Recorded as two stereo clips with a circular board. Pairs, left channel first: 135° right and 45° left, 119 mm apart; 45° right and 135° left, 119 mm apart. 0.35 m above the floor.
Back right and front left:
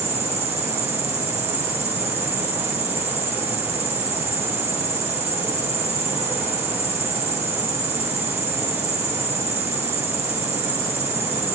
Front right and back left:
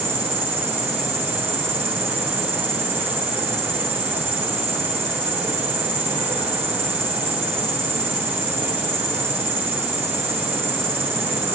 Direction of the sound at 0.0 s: 155° right.